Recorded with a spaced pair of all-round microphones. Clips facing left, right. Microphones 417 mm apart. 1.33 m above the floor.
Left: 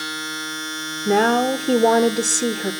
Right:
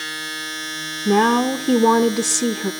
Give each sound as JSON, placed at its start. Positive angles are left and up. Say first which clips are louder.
{"t": 0.0, "sound": "a machine running", "louder": "left 3 dB", "side_deg": -35, "distance_m": 3.5}
{"t": 1.1, "sound": "a woman speaking", "louder": "right 1 dB", "side_deg": -15, "distance_m": 0.5}